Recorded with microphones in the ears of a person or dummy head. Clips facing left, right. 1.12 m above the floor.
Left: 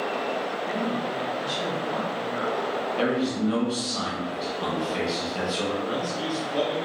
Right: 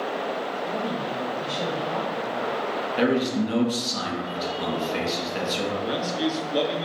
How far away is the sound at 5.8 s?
About 0.9 m.